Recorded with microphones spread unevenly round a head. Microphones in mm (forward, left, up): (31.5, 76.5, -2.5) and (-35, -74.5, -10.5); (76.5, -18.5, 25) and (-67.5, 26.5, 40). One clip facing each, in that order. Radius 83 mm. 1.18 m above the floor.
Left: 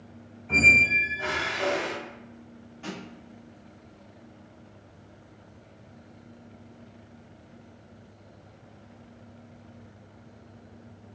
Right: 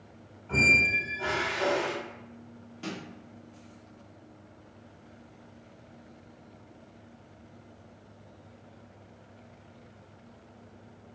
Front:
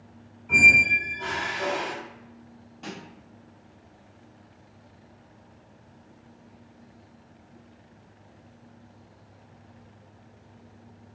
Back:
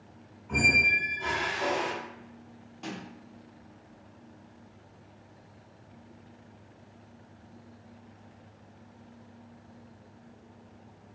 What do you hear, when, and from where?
0.5 s a squeak: 5° left, 1.4 m
2.8 s a snare drum: 105° right, 0.8 m